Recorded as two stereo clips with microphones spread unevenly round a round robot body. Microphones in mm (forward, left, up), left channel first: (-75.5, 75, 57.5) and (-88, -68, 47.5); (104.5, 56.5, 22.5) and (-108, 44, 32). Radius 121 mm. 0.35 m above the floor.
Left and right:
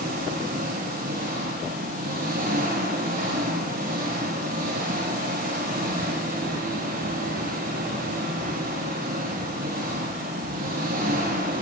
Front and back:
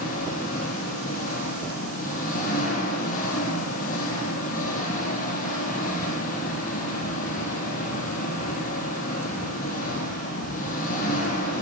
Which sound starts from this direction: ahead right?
An engine running, at 0.0 s.